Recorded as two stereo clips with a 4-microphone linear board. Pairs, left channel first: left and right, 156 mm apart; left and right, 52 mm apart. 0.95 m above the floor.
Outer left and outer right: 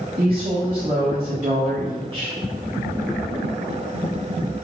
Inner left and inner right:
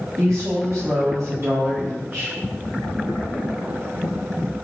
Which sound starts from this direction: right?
A woman speaking, at 0.2 s.